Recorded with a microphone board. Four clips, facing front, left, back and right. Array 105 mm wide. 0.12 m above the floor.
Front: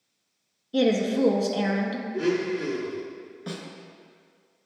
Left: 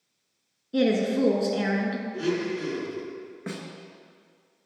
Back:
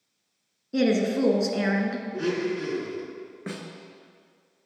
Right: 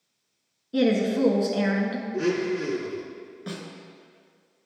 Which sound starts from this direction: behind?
A woman speaking, at 0.7 s.